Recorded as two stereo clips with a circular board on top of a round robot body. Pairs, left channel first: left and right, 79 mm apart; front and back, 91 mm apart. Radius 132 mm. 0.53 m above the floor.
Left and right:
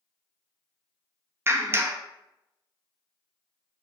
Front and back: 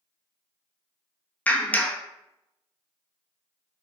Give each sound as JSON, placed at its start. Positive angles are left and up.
{"t": 1.5, "sound": "a clap", "azimuth_deg": -60, "distance_m": 0.7}